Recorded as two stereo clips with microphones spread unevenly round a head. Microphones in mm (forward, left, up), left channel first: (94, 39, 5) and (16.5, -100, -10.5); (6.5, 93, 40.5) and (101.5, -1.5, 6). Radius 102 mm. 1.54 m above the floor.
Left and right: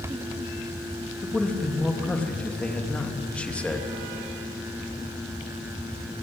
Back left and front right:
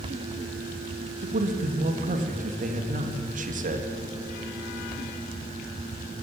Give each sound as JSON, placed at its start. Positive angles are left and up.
{"t": 1.2, "sound": "a man speaking", "azimuth_deg": -20, "distance_m": 2.5}